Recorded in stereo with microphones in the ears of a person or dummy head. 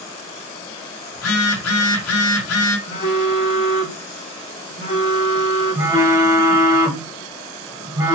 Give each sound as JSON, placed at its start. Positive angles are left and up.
{"t": 1.1, "sound": "a phone buzzing", "side_deg": 85, "distance_m": 0.7}
{"t": 2.9, "sound": "a phone buzzing", "side_deg": 35, "distance_m": 0.7}
{"t": 5.8, "sound": "a phone buzzing", "side_deg": -25, "distance_m": 0.8}